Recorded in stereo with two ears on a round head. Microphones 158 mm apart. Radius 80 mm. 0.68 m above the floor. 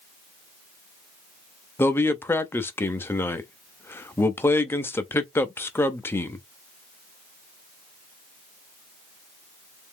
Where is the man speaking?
15° left (ahead or behind), 0.5 m.